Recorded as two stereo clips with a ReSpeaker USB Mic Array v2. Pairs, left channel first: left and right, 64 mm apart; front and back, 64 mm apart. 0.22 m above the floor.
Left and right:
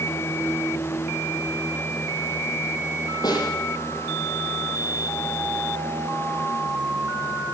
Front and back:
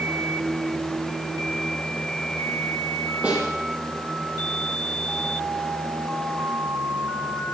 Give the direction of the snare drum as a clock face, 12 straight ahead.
8 o'clock.